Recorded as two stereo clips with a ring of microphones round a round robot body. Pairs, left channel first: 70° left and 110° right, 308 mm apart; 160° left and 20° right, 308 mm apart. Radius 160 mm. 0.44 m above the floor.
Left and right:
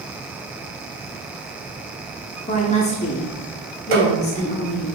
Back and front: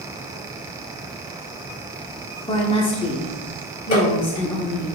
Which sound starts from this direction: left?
A woman speaking, at 2.5 s.